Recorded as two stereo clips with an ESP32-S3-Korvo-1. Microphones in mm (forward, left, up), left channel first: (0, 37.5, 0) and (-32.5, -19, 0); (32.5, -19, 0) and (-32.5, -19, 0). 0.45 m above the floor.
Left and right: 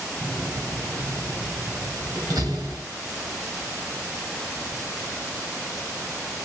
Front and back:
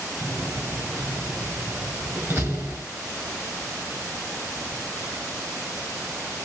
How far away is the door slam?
About 5 m.